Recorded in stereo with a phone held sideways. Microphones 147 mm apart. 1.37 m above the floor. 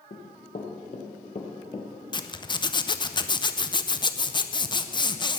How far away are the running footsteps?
About 3 m.